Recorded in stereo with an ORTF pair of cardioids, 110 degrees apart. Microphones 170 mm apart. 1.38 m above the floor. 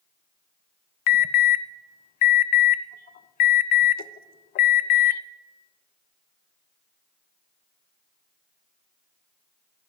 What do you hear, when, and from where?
1.1 s an alarm: 60° left, 0.6 m